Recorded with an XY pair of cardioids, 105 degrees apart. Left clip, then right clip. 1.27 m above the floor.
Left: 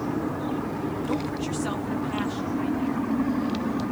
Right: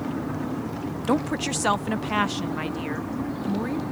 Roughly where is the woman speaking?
Ahead right.